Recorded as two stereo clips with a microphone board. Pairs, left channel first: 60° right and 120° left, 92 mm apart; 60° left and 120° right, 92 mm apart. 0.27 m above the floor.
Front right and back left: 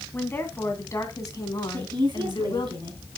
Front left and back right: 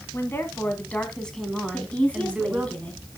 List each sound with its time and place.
0.1 s a woman speaking: 5° left, 1.8 m; by 2.7 s 50° right, 1.9 m
1.7 s a woman speaking: 135° left, 2 m